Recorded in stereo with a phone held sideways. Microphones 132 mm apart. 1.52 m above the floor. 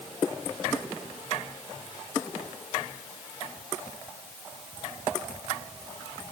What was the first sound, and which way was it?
Only background noise.